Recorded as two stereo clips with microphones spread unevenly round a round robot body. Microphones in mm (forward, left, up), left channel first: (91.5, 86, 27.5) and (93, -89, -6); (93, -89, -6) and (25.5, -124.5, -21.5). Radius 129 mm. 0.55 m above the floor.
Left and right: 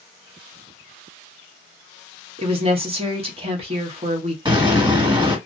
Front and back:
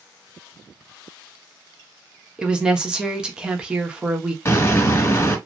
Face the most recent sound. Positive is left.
turn(degrees=-25)